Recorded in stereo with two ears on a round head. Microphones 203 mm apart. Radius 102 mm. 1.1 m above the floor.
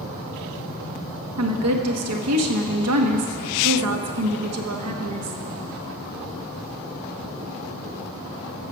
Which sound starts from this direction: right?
A woman speaking, at 1.4 s.